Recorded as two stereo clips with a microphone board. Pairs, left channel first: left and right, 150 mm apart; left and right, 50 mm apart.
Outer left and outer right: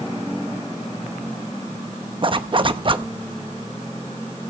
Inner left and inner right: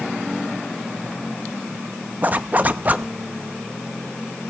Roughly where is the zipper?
Right.